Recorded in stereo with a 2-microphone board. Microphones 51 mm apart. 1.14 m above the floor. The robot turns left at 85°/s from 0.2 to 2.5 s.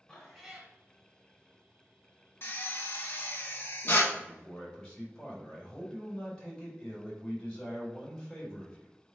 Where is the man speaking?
15° left (ahead or behind), 4 m.